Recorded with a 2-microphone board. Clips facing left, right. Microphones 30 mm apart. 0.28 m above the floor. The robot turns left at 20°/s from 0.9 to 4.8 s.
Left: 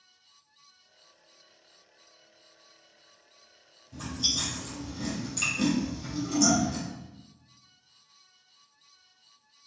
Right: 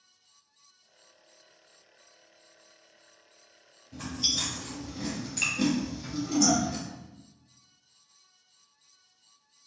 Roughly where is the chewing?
Right.